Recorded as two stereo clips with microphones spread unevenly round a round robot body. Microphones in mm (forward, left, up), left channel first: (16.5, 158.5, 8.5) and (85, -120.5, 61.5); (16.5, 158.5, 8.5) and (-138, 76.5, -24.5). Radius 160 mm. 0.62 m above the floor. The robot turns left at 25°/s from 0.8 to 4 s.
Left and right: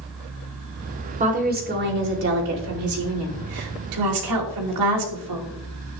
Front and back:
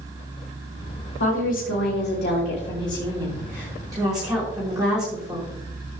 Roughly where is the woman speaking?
Ahead.